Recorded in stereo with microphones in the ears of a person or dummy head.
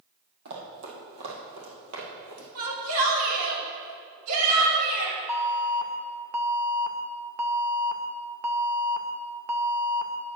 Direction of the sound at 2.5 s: 85° right.